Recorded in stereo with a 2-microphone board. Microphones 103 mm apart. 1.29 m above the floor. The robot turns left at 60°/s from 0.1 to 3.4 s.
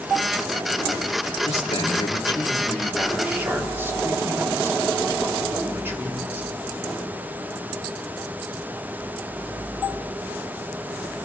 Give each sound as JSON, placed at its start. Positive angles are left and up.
{"t": 1.4, "sound": "a man speaking", "azimuth_deg": 95, "distance_m": 2.5}